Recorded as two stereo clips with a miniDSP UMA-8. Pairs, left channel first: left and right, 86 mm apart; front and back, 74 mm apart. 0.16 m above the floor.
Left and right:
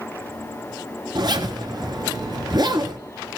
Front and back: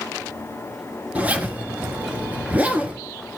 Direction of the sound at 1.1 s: 110° right.